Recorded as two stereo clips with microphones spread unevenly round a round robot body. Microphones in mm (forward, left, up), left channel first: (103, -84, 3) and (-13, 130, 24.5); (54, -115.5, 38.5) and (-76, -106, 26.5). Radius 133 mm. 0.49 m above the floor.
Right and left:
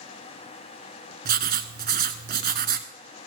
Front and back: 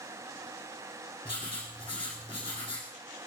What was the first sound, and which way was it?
Writing, 65° left.